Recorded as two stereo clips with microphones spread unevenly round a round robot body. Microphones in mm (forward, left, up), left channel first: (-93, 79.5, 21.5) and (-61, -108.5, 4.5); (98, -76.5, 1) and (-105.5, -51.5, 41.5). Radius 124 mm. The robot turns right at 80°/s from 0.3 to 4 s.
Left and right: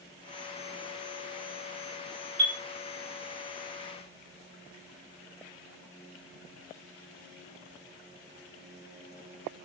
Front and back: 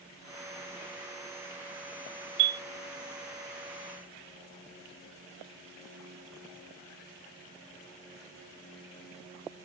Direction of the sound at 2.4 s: 170° right.